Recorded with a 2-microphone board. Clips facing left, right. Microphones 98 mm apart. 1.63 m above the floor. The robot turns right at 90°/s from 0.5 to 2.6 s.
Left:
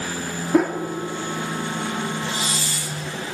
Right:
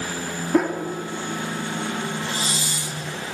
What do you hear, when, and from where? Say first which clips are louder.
0.5 s a whoosh: left 2 dB; 5° left (ahead or behind), 2.5 m; by 0.8 s 15° right (ahead or behind), 2.5 m
2.3 s a hiss: left 1 dB; 45° right (ahead or behind), 1.6 m; by 3.0 s 20° right (ahead or behind), 1.6 m